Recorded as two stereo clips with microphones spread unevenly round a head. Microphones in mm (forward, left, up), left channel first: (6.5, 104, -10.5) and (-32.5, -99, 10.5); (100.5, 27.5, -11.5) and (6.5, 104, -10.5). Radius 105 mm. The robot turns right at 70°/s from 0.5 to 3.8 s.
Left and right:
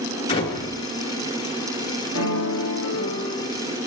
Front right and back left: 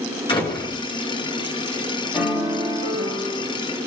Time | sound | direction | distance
0.3 | a door slam | 10° left | 8.5 m
2.1 | a piano | 55° left | 6.5 m